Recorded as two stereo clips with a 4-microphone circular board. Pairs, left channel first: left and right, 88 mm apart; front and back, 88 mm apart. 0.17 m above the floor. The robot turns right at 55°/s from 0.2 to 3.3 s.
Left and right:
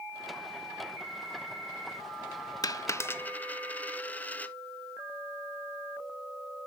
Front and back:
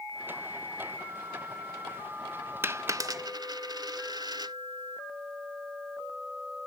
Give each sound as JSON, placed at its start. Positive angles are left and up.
{"t": 2.6, "sound": "a dropped coin", "azimuth_deg": 120, "distance_m": 0.5}